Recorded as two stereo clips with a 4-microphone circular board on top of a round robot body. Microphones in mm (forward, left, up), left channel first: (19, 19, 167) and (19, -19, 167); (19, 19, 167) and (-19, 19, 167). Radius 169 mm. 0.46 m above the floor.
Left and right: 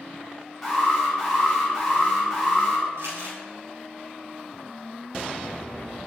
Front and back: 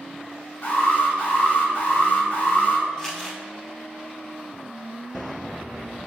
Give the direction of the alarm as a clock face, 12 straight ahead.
12 o'clock.